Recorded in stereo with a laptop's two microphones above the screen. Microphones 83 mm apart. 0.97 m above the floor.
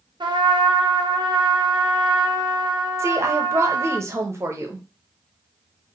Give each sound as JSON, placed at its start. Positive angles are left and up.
{"t": 0.2, "sound": "a trumpet", "side_deg": -70, "distance_m": 0.6}
{"t": 3.0, "sound": "a woman speaking", "side_deg": -35, "distance_m": 0.5}